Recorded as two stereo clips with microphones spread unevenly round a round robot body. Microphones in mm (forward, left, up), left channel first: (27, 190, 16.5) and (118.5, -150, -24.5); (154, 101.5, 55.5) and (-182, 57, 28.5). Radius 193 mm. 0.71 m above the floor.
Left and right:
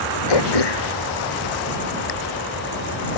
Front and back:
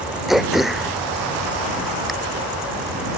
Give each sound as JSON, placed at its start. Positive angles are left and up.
{"t": 0.3, "sound": "throat clearing", "azimuth_deg": 100}